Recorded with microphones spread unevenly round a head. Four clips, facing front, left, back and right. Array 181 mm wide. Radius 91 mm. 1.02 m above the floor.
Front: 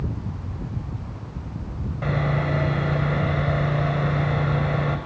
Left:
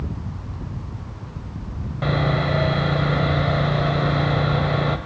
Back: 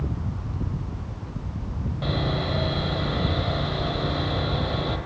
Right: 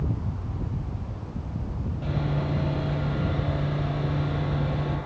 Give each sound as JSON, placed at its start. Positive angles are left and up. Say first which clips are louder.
{"t": 2.0, "sound": "sawing", "louder": "left 8 dB, front 3 dB", "azimuth_deg": 80, "distance_m": 2.5}